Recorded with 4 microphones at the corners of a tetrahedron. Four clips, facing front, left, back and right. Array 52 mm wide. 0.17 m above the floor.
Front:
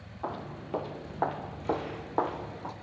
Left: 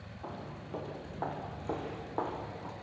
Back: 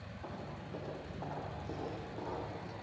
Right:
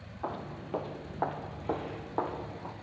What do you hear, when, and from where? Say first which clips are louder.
0.2 s footsteps: right 6 dB, front 9 dB; 40° right, 2.5 m; by 2.7 s 10° right, 3 m